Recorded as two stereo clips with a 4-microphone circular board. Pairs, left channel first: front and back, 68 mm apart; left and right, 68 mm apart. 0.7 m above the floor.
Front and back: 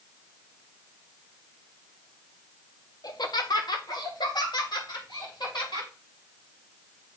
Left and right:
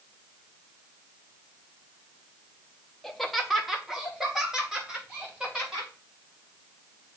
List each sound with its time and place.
3.0 s laughter: 5° left, 0.8 m; by 5.9 s 10° right, 4 m